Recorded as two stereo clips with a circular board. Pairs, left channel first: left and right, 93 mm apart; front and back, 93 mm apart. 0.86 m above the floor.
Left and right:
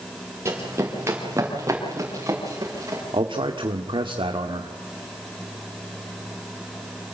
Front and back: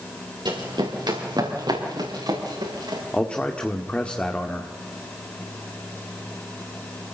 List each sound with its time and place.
0.5 s running footsteps: 150° right, 5.5 m; by 3.0 s 145° right, 7.5 m
3.1 s a man speaking: 75° right, 1.8 m